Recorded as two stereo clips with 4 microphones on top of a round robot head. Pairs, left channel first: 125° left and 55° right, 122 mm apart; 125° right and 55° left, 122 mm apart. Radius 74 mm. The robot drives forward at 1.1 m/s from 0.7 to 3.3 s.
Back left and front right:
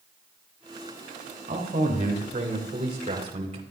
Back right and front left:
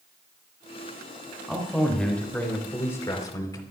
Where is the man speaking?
40° right, 3.5 m; by 3.6 s 75° right, 2.5 m.